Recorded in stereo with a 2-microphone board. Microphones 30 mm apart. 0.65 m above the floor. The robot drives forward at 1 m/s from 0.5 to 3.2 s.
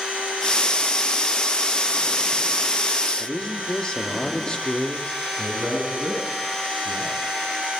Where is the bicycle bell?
I don't hear a bicycle bell.